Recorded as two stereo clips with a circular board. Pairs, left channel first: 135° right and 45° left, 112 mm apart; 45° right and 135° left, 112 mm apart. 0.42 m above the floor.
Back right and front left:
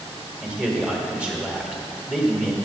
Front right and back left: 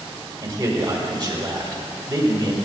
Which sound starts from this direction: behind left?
A man speaking, at 0.4 s.